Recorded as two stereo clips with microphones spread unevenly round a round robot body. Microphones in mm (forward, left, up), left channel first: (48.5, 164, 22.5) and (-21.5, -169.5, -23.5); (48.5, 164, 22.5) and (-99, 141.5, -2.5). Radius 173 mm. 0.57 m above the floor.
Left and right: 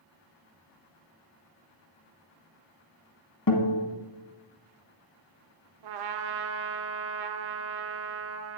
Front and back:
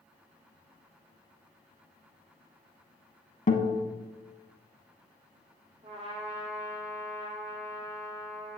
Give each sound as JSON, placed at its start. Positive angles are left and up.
{"t": 3.5, "sound": "a guitar", "azimuth_deg": 40, "distance_m": 1.5}
{"t": 5.8, "sound": "a trumpet", "azimuth_deg": -110, "distance_m": 0.7}